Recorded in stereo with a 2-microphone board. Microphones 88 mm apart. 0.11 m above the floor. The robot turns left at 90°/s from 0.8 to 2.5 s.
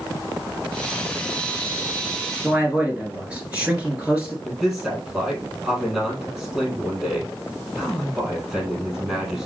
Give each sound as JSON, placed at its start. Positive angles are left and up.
{"t": 2.4, "sound": "a man speaking", "side_deg": -10, "distance_m": 1.5}
{"t": 4.5, "sound": "a man speaking", "side_deg": -10, "distance_m": 3.0}